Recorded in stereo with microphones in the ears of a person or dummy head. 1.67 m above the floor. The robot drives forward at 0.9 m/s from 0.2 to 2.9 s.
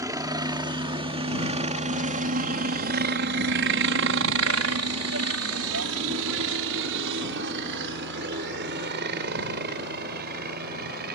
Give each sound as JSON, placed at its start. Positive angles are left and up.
{"t": 0.0, "sound": "a helicopter", "side_deg": -20}